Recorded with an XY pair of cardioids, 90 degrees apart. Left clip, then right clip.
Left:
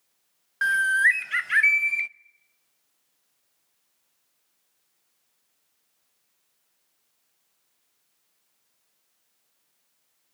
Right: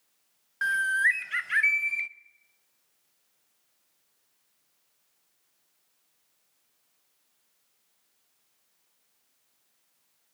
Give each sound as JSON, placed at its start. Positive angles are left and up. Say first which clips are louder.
{"t": 0.6, "sound": "a bird", "louder": "left 4 dB", "azimuth_deg": 35, "distance_m": 0.6}